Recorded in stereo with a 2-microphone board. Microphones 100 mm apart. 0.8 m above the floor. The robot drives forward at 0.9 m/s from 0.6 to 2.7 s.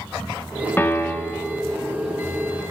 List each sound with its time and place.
0.8 s a piano: 20° left (ahead or behind), 1.7 m; by 1.6 s 15° left (ahead or behind), 2.5 m